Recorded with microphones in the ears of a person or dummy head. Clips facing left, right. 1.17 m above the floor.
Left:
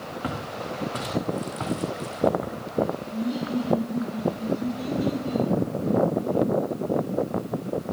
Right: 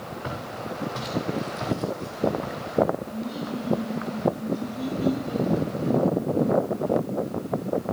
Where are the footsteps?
75° left (ahead or behind), 4.5 m; by 2.6 s 70° left (ahead or behind), 4.5 m.